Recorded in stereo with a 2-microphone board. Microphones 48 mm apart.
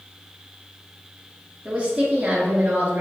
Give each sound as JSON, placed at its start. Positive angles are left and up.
{"t": 1.6, "sound": "a woman speaking", "side_deg": -20, "distance_m": 1.3}